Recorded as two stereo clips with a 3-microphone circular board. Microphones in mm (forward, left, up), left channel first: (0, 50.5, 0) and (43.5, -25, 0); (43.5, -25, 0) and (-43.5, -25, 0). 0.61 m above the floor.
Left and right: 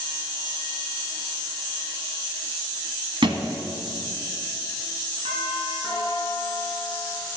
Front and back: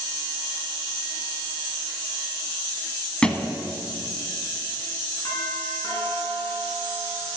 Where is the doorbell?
65° right, 7 m.